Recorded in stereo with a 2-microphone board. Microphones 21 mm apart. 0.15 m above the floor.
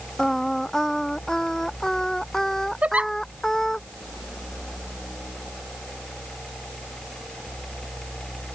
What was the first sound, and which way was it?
Singing, 20° left (ahead or behind).